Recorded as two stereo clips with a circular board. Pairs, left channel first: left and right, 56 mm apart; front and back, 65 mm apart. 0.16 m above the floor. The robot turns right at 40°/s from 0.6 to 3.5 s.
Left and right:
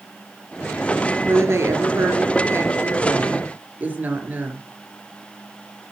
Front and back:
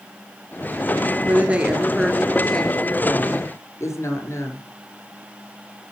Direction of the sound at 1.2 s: 125° right.